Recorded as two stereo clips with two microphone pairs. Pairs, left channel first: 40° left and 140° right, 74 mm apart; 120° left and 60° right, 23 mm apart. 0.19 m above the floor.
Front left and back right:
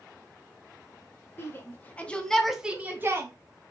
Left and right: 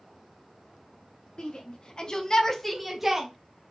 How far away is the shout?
About 2 m.